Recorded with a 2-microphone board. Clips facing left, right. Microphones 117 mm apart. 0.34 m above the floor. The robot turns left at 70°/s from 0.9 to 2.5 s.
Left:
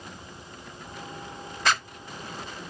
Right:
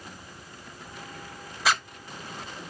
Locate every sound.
1.6 s a zipper: 5° right (ahead or behind), 0.7 m; by 1.8 s 5° left (ahead or behind), 0.7 m